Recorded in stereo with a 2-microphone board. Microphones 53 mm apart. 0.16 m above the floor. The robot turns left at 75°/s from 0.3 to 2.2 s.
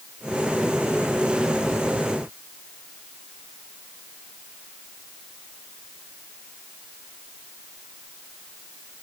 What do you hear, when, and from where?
Only background noise.